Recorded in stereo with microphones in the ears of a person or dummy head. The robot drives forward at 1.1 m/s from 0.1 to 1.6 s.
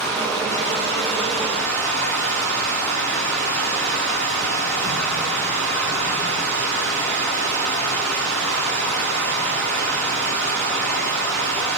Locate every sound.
0.0 s running water: 5° left (ahead or behind), 9 m